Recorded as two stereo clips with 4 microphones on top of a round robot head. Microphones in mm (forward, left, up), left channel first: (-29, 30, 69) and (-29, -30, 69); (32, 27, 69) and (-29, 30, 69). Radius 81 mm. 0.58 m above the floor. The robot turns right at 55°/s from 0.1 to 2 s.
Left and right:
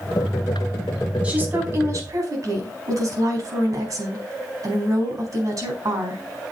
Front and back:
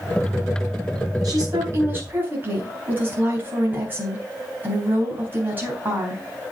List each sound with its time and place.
1.2 s a woman speaking: 160° right, 4.5 m; by 6.2 s 120° right, 4.5 m